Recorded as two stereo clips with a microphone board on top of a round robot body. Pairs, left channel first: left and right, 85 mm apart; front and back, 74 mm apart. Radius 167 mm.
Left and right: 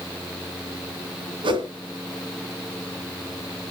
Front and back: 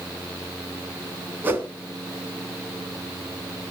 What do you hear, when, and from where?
1.4 s a whoosh: 115° right, 2.5 m